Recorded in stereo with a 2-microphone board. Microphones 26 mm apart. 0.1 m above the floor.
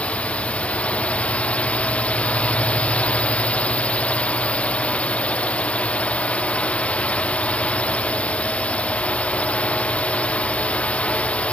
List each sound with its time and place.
0.0 s a drone: 55° left (ahead or behind)